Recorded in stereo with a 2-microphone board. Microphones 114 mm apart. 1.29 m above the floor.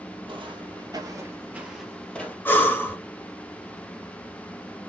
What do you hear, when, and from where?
0.3 s footsteps: 55° right (ahead or behind), 2 m; by 2.4 s 15° left (ahead or behind), 2 m
2.5 s breathing: 20° left (ahead or behind), 1.6 m